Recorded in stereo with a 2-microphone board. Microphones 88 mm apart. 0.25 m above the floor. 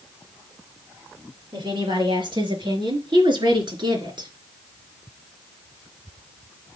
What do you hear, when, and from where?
1.5 s a woman speaking: 60° right (ahead or behind), 5.5 m